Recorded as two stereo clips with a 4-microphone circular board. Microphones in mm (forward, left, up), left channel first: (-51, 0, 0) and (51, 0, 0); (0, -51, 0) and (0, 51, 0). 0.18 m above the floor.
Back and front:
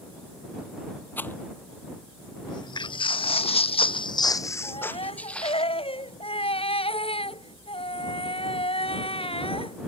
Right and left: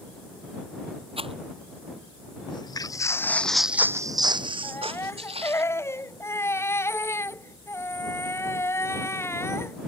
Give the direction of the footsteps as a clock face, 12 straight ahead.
4 o'clock.